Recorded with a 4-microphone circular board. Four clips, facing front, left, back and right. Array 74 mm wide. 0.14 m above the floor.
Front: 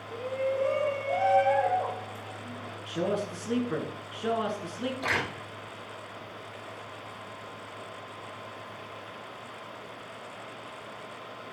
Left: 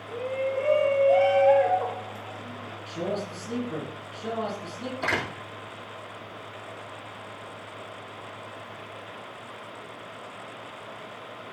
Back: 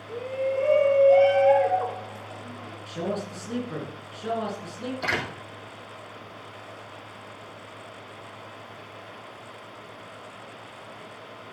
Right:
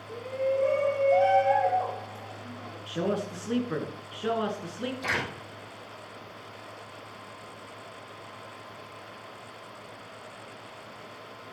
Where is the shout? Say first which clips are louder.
Even, back 2 dB; 105° left, 3.5 m; by 2.8 s 130° left, 3.5 m.